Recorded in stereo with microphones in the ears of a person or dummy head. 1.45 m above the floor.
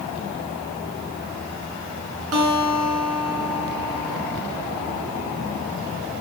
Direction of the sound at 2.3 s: 80° right.